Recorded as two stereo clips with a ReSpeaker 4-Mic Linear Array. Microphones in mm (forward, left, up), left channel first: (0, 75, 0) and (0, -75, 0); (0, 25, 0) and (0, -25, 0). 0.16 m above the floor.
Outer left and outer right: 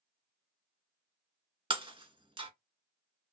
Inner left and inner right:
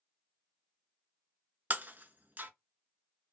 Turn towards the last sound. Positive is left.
turn(degrees=-35)  # may be behind; listen again after turning